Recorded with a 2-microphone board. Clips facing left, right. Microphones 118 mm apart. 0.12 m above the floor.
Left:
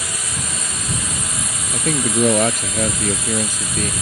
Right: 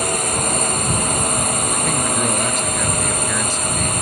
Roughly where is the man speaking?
Left.